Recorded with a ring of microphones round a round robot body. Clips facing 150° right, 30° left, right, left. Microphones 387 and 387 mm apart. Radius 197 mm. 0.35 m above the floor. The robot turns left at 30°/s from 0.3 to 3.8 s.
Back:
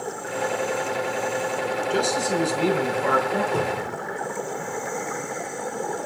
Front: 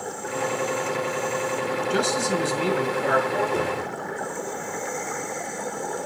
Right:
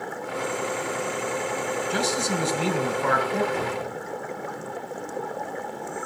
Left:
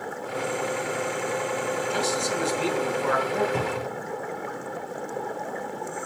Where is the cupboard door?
125° left, 3.5 m; by 4.0 s 115° left, 3.5 m.